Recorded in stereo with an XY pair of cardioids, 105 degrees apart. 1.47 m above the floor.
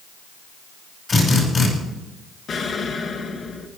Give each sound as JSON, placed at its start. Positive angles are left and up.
{"t": 1.1, "sound": "a drill", "azimuth_deg": 40, "distance_m": 6.0}
{"t": 2.5, "sound": "an explosion", "azimuth_deg": 50, "distance_m": 1.6}